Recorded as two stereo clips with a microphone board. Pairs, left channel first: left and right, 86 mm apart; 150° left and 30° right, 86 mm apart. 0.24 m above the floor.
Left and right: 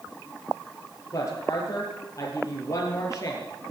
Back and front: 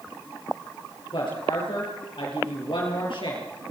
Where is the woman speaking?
140° left, 6 m.